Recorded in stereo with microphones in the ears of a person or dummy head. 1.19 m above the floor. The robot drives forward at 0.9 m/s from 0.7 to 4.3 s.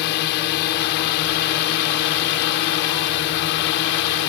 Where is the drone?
70° left (ahead or behind).